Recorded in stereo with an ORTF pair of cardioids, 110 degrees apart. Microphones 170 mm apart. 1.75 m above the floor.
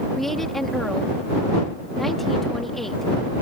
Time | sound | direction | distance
0.1 | a woman speaking | straight ahead | ?